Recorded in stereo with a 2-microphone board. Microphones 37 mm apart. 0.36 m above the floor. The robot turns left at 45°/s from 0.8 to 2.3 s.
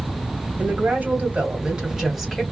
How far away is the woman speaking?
About 1.8 m.